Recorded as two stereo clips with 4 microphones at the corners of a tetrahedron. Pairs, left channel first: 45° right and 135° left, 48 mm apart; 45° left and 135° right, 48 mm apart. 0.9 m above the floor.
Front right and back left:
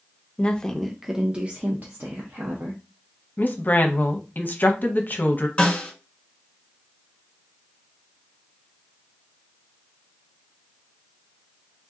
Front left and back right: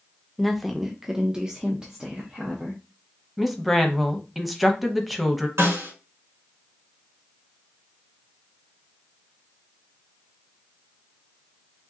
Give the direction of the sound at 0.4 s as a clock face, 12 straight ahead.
1 o'clock.